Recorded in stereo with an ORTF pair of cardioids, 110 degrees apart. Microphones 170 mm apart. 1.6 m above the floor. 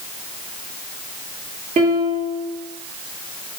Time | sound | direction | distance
1.8 | a piano | 50° right | 2.5 m